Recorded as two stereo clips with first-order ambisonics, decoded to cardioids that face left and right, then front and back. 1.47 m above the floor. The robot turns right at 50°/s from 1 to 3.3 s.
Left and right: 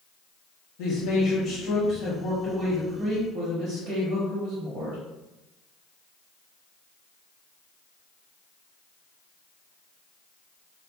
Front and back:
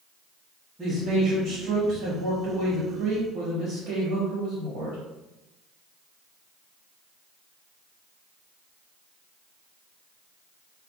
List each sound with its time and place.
0.8 s a man speaking: 100° left, 0.6 m; by 5.0 s 145° right, 0.6 m